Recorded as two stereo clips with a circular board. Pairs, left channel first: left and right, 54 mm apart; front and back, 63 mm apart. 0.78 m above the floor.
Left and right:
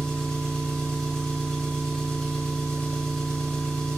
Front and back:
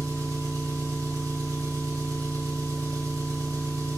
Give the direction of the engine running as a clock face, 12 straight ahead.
7 o'clock.